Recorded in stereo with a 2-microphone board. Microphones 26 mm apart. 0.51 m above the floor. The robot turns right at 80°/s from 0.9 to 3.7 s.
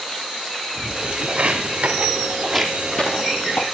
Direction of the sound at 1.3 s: 60° right (ahead or behind).